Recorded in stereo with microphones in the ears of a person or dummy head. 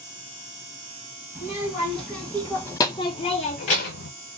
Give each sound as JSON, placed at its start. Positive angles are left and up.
{"t": 1.4, "sound": "a child speaking", "side_deg": -5, "distance_m": 1.4}